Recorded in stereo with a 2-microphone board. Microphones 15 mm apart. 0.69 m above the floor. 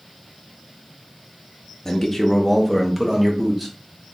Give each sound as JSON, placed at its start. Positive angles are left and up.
{"t": 1.9, "sound": "a man speaking", "side_deg": 20, "distance_m": 0.5}